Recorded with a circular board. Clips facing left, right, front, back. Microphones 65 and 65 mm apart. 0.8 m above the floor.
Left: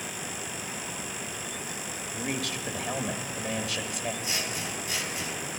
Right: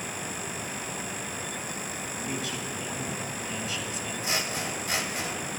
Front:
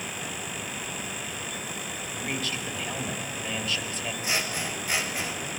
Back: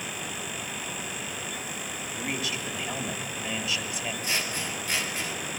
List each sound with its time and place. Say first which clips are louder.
2.1 s a man speaking: left 2 dB, even; 100° left, 1.5 m
4.2 s scissors: right 3 dB, front 3 dB; 75° right, 1.6 m